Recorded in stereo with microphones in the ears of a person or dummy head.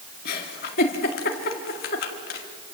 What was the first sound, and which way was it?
A giggle, 45° left (ahead or behind).